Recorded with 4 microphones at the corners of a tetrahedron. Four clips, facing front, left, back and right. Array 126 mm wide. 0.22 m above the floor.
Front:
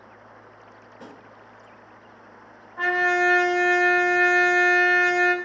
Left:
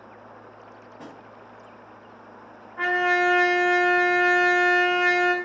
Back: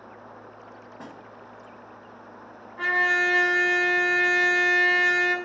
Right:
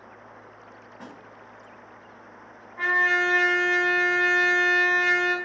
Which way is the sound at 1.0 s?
175° left.